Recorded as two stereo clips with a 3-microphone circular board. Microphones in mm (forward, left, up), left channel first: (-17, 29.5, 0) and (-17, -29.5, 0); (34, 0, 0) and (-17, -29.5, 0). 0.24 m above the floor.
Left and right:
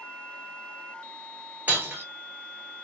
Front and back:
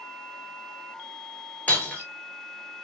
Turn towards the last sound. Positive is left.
turn(degrees=-35)